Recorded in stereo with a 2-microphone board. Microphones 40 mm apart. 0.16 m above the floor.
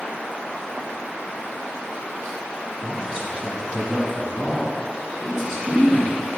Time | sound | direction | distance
2.8 | a man speaking | 15° left (ahead or behind) | 1.6 m